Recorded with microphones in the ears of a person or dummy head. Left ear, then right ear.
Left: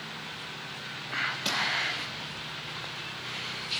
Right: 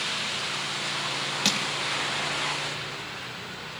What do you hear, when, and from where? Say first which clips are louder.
1.4 s crushing: right 5 dB; 55° right (ahead or behind), 0.7 m